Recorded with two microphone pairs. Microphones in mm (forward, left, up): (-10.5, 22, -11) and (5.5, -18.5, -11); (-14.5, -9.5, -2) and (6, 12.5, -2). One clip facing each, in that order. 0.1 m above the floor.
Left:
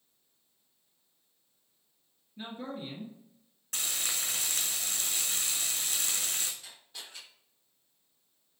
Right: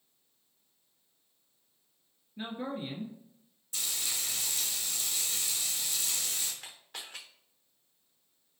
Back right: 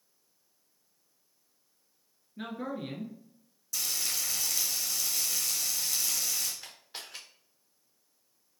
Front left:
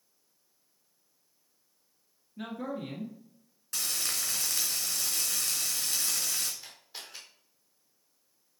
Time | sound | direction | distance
2.4 | a man speaking | 95° right | 1.3 m
3.7 | frying | 90° left | 2.5 m
6.6 | a camera shutter | 75° right | 2.5 m